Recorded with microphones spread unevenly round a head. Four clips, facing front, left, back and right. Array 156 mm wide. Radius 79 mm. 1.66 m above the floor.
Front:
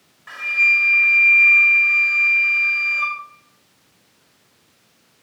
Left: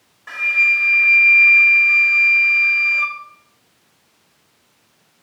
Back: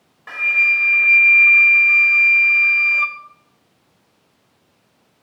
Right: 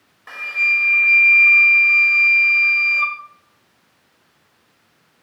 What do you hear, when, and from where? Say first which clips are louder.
0.3 s a flute: left 3 dB, back 1 dB; 175° right, 0.6 m